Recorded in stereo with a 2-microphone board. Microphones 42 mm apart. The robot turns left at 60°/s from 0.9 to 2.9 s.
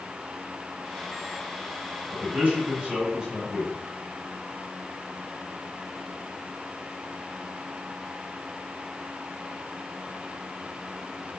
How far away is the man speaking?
About 1.8 m.